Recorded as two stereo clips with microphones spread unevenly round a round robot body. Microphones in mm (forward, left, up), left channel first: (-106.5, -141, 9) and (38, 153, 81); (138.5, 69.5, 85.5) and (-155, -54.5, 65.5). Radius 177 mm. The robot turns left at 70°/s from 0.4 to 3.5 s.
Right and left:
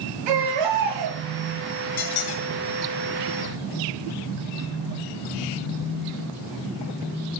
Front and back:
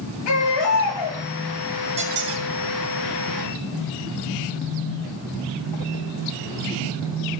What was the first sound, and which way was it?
A baby crying, 60° left.